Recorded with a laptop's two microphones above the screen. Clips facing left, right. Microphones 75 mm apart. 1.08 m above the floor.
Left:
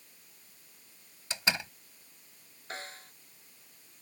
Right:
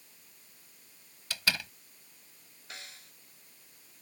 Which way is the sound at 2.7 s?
40° left (ahead or behind).